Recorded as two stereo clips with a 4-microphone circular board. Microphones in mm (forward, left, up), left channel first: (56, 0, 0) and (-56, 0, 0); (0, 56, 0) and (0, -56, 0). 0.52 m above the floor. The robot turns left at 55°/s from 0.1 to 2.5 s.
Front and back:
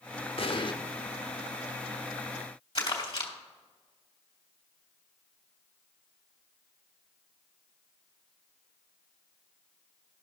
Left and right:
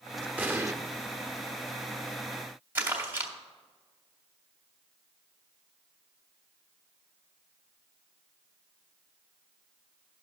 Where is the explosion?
15° right, 0.7 m; by 0.7 s 35° right, 0.7 m.